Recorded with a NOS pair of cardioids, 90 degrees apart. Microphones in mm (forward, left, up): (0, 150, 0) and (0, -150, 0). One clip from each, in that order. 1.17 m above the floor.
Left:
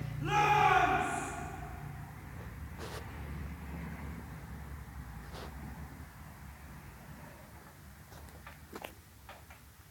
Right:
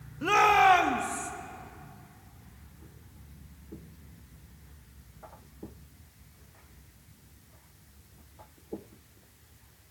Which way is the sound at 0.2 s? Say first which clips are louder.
Right 6 dB; 65° right.